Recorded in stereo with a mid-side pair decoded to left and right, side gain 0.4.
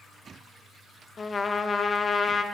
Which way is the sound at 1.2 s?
35° left.